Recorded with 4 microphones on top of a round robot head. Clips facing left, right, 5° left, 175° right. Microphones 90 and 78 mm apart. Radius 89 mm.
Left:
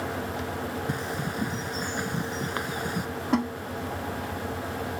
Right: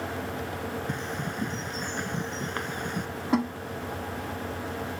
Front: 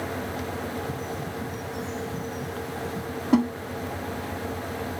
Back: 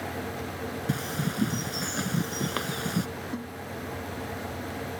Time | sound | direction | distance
0.9 | a bird | 175° left | ?
3.3 | a snare drum | straight ahead | ?